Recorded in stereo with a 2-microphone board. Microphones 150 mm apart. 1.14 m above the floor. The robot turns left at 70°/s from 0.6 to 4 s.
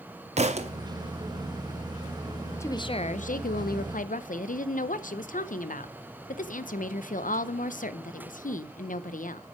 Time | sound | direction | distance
0.4 | a thud | 50° right (ahead or behind) | 0.7 m
2.6 | a woman speaking | 165° left | 0.6 m